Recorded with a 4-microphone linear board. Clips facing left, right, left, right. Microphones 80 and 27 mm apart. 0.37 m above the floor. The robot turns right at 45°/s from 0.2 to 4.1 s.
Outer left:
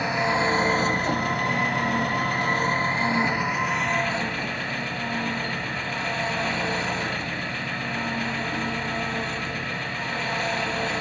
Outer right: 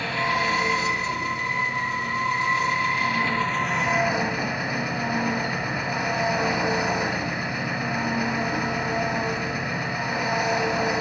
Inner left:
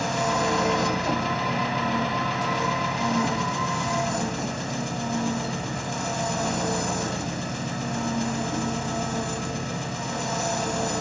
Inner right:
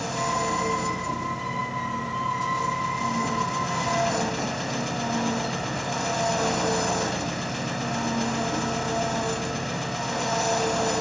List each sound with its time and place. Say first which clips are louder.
0.0 s an engine running: outer left 1 dB, inner left 2 dB; 20° left, 1.6 m; by 11.0 s 165° right, 1.6 m